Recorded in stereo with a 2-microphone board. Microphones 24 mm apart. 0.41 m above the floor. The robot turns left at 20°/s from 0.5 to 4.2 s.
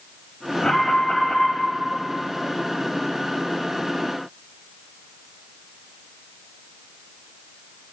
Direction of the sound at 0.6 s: 40° left (ahead or behind).